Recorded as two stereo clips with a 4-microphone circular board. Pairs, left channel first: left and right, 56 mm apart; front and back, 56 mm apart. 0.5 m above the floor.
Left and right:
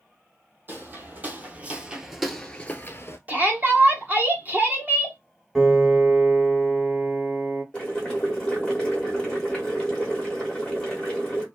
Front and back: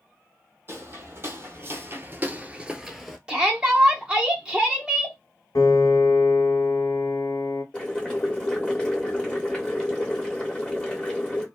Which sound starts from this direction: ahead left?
Boiling, at 7.7 s.